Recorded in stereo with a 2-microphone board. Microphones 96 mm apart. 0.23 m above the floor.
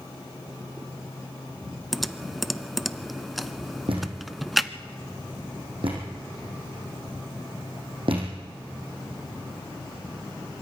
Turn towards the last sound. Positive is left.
turn(degrees=-65)  # may be behind; listen again after turning